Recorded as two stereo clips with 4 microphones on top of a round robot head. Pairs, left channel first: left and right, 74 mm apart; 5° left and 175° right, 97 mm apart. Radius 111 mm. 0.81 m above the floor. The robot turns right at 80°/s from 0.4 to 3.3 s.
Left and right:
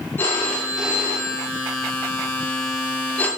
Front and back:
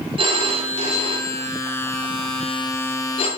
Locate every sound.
0.2 s a phone ringing: 155° left, 1.5 m; by 3.3 s 25° left, 1.5 m